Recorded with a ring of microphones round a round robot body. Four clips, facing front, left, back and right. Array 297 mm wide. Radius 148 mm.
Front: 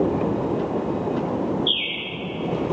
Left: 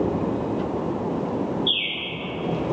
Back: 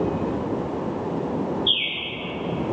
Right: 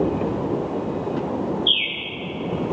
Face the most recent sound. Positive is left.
turn(degrees=-90)